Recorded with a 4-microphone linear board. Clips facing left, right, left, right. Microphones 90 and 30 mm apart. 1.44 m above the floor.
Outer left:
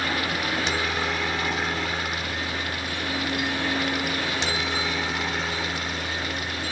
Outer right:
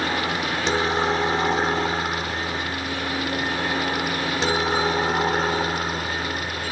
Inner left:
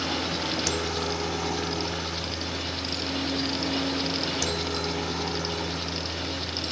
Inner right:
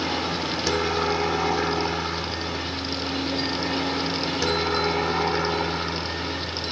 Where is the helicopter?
30° right (ahead or behind); by 6.7 s 40° right (ahead or behind).